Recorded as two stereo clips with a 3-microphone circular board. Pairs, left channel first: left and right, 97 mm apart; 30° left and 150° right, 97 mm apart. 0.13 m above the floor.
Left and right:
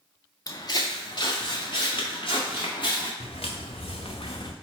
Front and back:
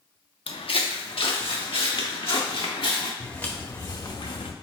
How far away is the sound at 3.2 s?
About 0.9 m.